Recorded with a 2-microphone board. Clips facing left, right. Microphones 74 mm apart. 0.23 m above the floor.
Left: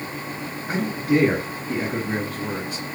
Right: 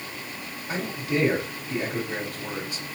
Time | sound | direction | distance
0.7 | a man speaking | 65° left (ahead or behind) | 3.5 m